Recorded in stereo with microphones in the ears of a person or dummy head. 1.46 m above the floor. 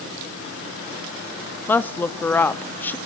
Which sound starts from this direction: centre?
A woman speaking, at 1.7 s.